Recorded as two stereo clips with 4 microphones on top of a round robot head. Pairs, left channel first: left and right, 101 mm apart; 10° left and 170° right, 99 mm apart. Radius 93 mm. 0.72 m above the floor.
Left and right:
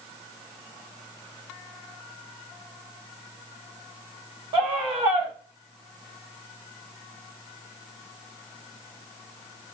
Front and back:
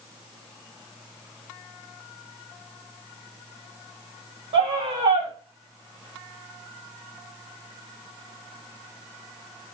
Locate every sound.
4.5 s a scream: 135° right, 3 m